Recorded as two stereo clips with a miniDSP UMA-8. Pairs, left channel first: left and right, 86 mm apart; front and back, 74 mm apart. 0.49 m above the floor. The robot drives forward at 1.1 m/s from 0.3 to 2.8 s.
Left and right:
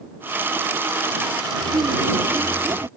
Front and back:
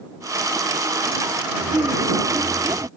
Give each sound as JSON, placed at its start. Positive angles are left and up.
{"t": 1.6, "sound": "laughter", "azimuth_deg": -135}